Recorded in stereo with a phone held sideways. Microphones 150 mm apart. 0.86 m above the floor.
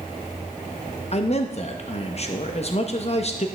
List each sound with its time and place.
1.1 s a man speaking: 45° left (ahead or behind), 0.8 m